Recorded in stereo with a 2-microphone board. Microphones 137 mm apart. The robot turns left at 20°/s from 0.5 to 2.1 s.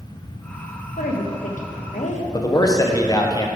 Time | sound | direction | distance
1.0 | a woman speaking | 85° left | 1.2 m
2.3 | a man speaking | 30° left (ahead or behind) | 1.0 m